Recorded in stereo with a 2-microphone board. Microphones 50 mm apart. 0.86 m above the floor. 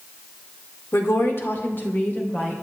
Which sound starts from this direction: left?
A woman speaking, at 0.9 s.